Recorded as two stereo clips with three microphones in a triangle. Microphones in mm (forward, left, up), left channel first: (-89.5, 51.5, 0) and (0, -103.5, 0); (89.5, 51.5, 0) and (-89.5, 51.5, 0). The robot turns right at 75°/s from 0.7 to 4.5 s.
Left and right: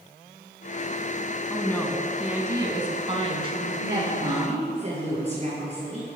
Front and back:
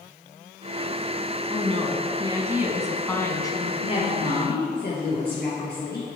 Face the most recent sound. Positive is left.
turn(degrees=-10)